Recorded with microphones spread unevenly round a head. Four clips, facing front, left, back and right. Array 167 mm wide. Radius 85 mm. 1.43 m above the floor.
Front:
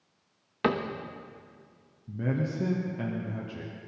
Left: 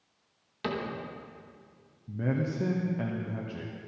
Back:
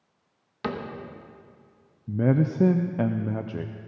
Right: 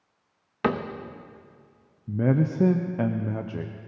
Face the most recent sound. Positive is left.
turn(degrees=-150)